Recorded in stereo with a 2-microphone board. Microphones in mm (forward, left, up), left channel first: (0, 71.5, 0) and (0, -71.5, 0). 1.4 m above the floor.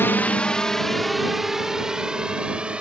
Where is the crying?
I don't hear crying.